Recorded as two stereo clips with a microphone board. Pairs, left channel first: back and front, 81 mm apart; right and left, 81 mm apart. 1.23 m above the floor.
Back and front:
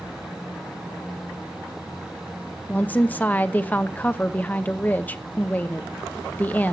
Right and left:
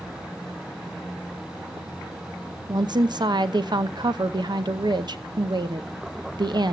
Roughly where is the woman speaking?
Behind left.